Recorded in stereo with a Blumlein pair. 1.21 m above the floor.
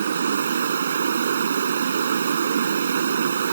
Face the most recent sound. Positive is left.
turn(degrees=-65)